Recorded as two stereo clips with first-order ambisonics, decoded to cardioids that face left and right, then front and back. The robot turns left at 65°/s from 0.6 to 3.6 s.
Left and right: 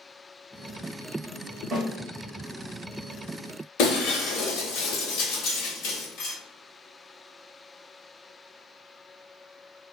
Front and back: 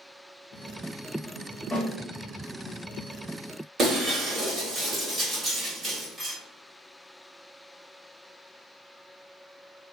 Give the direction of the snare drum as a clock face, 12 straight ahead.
2 o'clock.